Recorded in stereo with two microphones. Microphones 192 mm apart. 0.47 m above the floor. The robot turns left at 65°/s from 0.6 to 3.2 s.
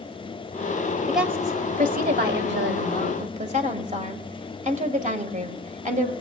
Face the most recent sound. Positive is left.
turn(degrees=-135)